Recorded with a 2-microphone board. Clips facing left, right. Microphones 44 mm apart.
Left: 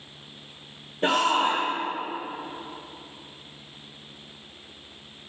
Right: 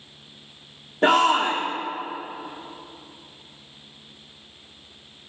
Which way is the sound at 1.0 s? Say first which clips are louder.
Right 4 dB; 65° right (ahead or behind).